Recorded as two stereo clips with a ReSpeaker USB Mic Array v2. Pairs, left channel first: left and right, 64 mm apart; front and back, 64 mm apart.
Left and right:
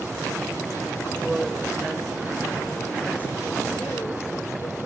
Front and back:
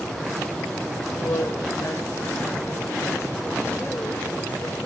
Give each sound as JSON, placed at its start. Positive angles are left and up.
{"t": 1.2, "sound": "a woman speaking", "azimuth_deg": -10, "distance_m": 2.5}